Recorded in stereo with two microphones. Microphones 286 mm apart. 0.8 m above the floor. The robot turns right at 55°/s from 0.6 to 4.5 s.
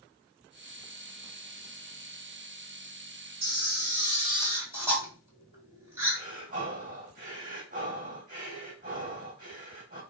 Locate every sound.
3.4 s a camera shutter: 70° right, 2.5 m; by 6.2 s 10° right, 2.5 m
6.2 s breathing: 30° right (ahead or behind), 2.5 m